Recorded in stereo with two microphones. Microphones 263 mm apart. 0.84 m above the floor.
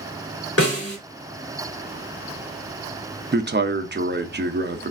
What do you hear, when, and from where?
0.6 s a snare drum: 60° left (ahead or behind), 3 m
3.3 s a man speaking: 40° right (ahead or behind), 0.6 m